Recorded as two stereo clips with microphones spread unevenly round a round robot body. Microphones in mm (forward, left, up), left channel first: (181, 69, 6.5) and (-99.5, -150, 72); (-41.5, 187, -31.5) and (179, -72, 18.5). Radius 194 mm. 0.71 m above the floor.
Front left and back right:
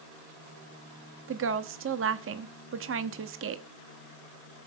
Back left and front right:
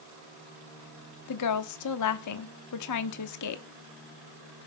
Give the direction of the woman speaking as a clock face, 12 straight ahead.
7 o'clock.